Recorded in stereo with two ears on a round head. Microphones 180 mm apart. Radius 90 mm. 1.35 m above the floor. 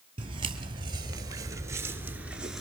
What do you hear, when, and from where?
0.2 s footsteps: 25° right (ahead or behind), 1.9 m; by 2.6 s centre (ahead or behind), 1.3 m